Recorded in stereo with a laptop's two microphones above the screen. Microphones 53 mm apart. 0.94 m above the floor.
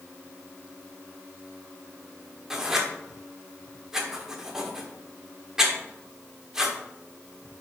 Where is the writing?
10° right (ahead or behind), 0.7 m.